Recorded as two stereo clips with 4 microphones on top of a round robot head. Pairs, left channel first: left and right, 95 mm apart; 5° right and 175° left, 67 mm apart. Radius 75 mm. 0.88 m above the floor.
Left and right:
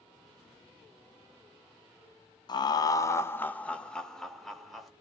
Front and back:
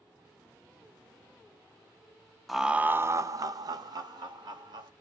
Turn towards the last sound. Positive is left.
turn(degrees=180)